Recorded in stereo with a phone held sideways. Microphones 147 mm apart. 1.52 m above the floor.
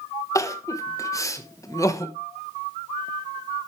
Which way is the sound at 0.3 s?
20° left (ahead or behind).